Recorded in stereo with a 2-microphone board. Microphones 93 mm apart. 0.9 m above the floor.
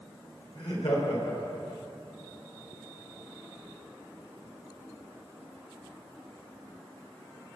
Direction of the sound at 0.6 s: 75° left (ahead or behind).